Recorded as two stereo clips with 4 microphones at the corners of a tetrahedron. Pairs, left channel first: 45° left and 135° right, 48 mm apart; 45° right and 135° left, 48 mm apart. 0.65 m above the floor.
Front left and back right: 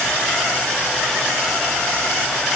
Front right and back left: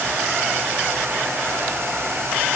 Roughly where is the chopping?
No chopping in this recording.